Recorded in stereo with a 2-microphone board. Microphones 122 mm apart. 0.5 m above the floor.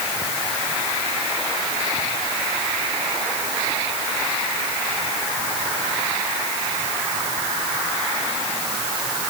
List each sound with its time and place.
Only background noise.